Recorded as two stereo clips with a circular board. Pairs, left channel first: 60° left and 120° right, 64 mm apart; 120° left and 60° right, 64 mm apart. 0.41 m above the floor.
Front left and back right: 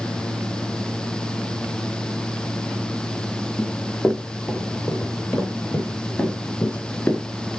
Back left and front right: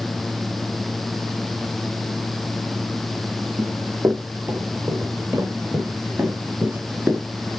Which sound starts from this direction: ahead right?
Running footsteps, at 3.6 s.